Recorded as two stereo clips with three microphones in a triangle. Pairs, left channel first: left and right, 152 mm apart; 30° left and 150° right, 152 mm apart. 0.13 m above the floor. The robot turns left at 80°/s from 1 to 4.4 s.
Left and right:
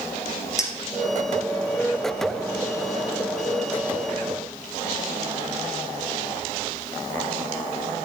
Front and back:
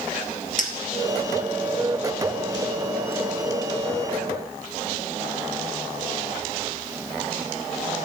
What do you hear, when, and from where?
0.6 s a clink: 25° left, 1.5 m; by 3.1 s 140° right, 1.5 m